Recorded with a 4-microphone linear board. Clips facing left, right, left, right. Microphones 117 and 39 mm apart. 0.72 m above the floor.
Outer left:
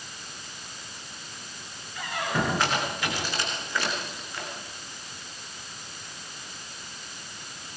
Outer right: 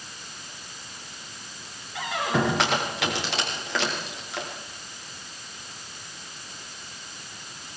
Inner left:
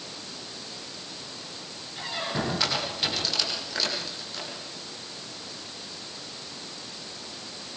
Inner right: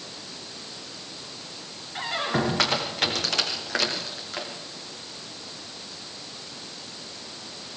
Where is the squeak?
85° right, 8.5 m.